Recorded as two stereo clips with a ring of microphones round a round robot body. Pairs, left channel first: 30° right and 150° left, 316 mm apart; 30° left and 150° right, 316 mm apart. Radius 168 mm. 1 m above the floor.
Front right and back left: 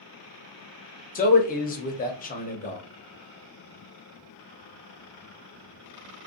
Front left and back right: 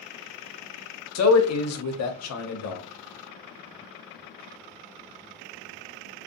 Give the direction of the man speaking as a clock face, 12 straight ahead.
11 o'clock.